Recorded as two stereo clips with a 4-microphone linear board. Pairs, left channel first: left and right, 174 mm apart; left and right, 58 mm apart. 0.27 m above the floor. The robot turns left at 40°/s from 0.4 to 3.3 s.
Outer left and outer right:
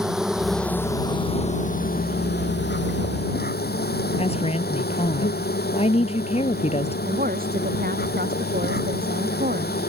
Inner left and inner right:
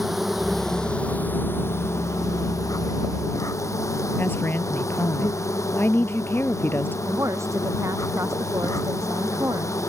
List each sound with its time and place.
0.0 s an insect: 175° right; by 9.9 s 65° left
4.2 s a woman speaking: 35° left (ahead or behind)
7.1 s a woman speaking: 60° right (ahead or behind)